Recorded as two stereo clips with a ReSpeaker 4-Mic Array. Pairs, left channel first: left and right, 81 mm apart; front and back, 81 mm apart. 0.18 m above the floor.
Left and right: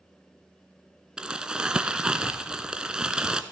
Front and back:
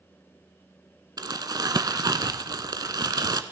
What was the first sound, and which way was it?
Crumpling, 170° right.